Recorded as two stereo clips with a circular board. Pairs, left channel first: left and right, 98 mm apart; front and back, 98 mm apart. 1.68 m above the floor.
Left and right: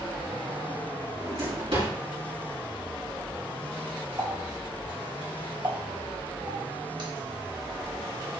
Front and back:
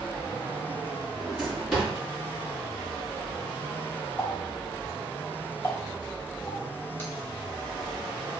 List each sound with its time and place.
1.2 s a drawer: 90° right, 2.5 m
4.2 s a running tap: 65° right, 1.5 m